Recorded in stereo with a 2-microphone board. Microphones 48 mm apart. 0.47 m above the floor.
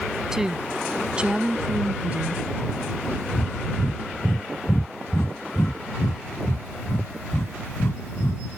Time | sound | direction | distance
0.3 | a woman speaking | 15° right (ahead or behind) | ?
3.3 | breathing | 65° left (ahead or behind) | ?